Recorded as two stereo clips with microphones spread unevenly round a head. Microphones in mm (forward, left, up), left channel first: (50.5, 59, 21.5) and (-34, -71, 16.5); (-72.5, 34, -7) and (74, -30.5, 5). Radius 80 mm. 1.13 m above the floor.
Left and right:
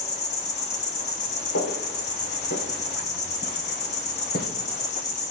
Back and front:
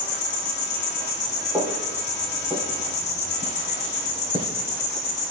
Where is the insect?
110° left, 2 m.